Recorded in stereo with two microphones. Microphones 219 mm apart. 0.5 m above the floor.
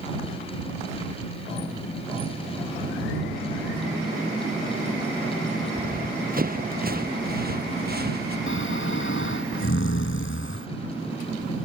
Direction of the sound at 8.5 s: 65° left (ahead or behind).